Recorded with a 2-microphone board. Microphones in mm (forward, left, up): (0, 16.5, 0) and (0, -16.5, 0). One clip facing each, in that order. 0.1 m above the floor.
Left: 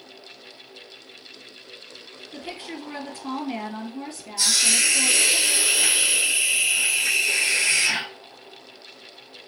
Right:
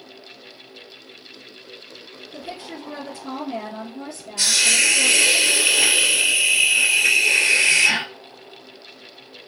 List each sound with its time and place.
2.3 s a woman speaking: 45° left (ahead or behind), 2 m
4.4 s a hiss: 50° right (ahead or behind), 1.7 m